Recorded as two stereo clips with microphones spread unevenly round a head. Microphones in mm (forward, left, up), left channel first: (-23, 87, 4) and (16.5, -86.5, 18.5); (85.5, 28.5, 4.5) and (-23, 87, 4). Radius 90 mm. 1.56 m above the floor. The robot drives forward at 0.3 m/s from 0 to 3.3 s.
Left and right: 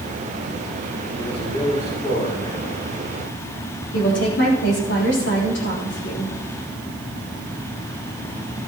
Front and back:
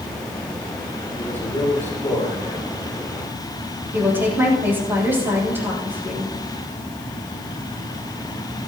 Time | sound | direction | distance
1.2 | a man speaking | 45° left | 7.5 m
3.9 | a woman speaking | 80° left | 8 m